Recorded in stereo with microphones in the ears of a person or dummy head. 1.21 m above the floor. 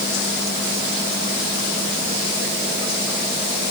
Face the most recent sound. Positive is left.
No sound to turn to.